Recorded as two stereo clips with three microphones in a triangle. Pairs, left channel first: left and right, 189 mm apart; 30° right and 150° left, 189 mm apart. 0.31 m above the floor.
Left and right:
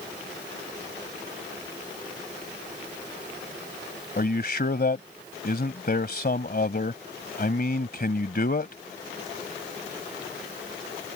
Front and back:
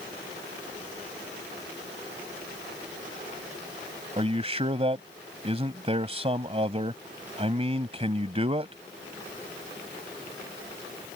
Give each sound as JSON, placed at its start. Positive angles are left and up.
{"t": 4.2, "sound": "a man speaking", "azimuth_deg": 100}